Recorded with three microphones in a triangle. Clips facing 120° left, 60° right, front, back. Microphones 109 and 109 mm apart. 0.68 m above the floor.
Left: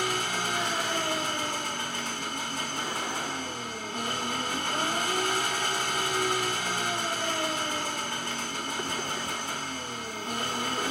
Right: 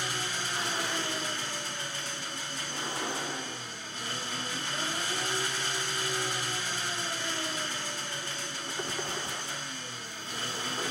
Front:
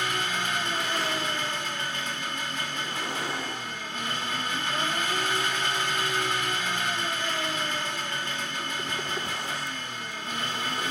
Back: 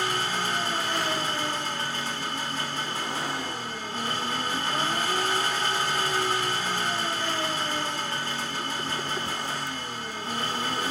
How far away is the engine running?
About 1.0 m.